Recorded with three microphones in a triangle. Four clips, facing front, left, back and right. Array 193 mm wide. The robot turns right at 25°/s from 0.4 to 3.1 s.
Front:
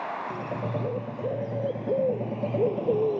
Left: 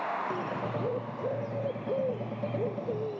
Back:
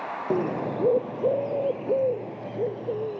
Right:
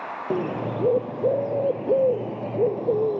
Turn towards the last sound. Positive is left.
turn(degrees=-65)